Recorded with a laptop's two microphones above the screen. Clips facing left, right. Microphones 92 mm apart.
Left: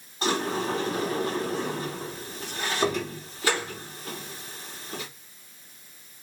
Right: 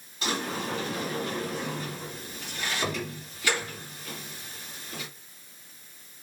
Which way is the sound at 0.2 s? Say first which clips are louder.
Left 5 dB; 40° left (ahead or behind).